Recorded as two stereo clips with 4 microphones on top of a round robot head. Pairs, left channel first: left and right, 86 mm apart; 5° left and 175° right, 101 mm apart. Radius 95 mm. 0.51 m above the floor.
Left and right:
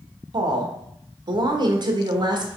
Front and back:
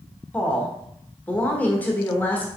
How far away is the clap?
No clap in this recording.